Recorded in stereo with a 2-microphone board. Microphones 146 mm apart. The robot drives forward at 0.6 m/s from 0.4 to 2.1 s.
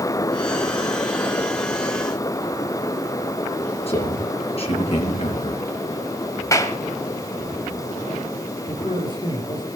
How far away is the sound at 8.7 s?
About 7.5 m.